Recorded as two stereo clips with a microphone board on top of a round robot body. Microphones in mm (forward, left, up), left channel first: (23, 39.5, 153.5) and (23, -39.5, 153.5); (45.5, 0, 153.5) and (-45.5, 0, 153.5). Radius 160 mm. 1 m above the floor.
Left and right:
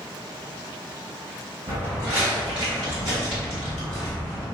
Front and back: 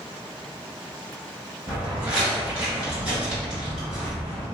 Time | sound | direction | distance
1.7 | footsteps | 120° right | 1.7 m